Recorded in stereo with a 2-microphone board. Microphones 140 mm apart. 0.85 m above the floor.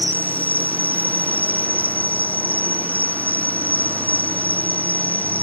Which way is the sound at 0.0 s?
10° left (ahead or behind).